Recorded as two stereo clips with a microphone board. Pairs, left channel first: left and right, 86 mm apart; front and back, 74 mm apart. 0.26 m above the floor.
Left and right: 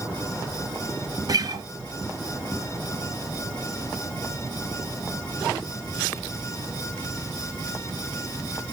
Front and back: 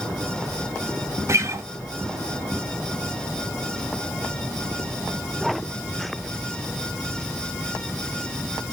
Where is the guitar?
130° right, 0.7 m.